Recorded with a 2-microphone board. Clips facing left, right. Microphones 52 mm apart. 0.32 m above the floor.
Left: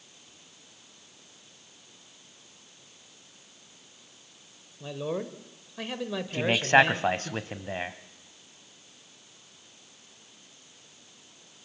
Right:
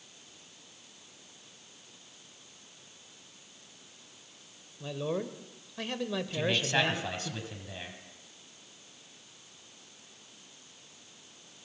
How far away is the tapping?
No tapping in this recording.